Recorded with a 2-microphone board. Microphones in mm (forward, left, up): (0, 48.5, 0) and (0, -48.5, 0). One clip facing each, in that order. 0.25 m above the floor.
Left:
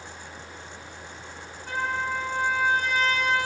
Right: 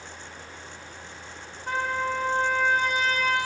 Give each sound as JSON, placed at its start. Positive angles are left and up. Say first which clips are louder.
{"t": 1.7, "sound": "a trumpet", "louder": "right 1 dB", "side_deg": -50, "distance_m": 2.0}